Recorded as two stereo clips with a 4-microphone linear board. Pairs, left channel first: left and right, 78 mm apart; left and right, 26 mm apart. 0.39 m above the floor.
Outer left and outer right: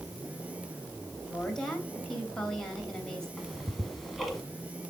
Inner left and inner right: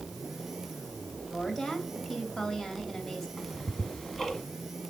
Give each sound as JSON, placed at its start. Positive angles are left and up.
{"t": 1.2, "sound": "a woman speaking", "side_deg": 10, "distance_m": 2.5}
{"t": 3.4, "sound": "ticking", "side_deg": 0, "distance_m": 1.4}